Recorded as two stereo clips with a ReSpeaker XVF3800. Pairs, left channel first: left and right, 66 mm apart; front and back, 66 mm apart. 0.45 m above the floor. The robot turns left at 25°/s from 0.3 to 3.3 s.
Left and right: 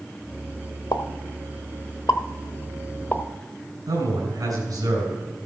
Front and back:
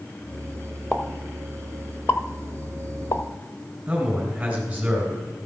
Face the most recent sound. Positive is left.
turn(degrees=-100)